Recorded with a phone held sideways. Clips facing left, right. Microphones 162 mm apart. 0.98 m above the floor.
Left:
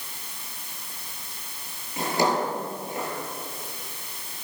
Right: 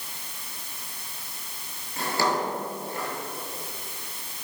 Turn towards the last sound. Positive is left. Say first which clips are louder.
# left 2 dB
turn(degrees=20)  # may be behind; listen again after turning